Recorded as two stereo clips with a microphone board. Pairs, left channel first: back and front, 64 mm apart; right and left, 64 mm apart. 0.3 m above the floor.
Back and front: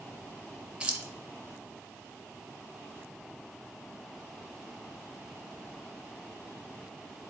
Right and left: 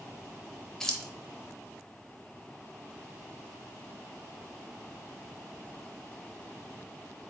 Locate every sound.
0.8 s keys jangling: 30° right, 0.5 m